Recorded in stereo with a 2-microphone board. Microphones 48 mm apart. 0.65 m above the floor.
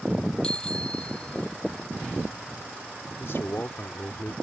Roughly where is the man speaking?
Left.